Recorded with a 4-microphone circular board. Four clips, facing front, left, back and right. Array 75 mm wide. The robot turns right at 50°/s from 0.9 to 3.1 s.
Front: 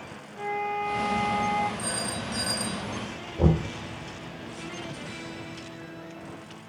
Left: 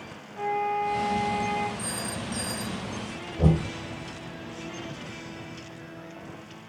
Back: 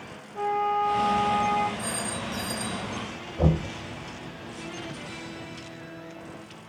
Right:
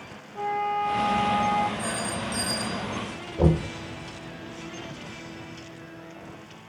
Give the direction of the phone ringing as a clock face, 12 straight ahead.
3 o'clock.